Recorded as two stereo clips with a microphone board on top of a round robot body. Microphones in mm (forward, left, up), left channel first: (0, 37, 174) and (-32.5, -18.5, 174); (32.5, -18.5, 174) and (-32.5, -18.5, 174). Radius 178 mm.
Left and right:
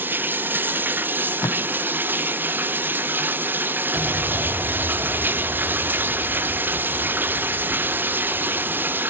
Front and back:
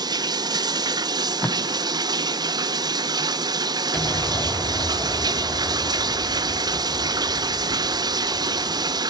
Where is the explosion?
50° right, 7 m.